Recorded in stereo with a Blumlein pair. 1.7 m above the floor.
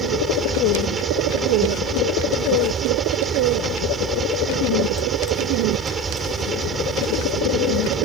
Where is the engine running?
20° right.